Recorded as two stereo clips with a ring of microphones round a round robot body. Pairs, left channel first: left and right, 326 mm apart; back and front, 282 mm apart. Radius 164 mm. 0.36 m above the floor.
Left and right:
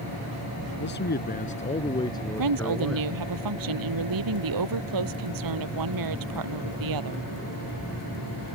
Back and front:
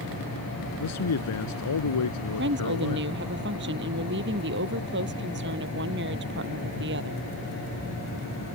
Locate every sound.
0.8 s a man speaking: 150° left; by 3.1 s 175° right
2.4 s a woman speaking: 60° right